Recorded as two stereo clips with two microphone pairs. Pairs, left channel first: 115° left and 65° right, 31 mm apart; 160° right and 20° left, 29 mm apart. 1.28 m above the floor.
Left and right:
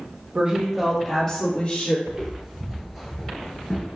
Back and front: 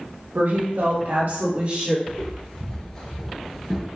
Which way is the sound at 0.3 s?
5° right.